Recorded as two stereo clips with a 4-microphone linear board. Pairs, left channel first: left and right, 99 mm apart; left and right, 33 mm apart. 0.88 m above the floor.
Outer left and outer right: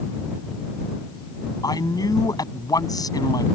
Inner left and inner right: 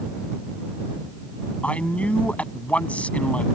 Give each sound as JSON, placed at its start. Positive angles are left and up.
{"t": 1.6, "sound": "a man speaking", "side_deg": 40}